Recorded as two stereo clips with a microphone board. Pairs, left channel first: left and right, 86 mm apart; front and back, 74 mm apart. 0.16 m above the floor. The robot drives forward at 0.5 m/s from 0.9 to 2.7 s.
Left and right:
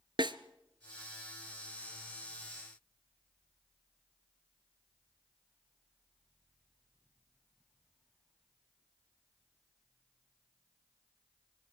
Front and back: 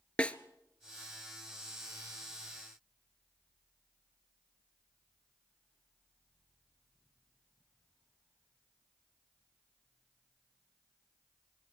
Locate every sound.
0.2 s a snare drum: 75° right, 0.8 m